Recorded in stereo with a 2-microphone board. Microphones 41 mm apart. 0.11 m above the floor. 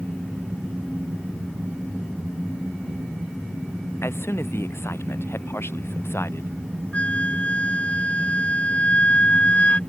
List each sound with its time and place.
4.0 s a man speaking: 85° left
6.9 s a flute: 30° left (ahead or behind)